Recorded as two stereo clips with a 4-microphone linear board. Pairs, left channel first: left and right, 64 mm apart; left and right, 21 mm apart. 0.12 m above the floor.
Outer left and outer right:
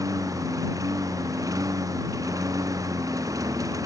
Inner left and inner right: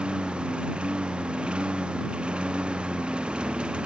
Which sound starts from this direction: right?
A lawn mower, at 0.0 s.